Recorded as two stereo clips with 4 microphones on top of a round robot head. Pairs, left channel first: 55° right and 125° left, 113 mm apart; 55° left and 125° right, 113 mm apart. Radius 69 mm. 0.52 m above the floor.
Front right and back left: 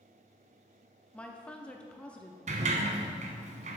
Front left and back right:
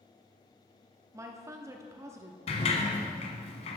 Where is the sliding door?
95° left, 1.1 m.